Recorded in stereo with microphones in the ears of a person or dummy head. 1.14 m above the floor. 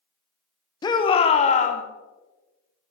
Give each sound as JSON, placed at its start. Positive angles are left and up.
{"t": 0.8, "sound": "a shout", "side_deg": 20, "distance_m": 1.0}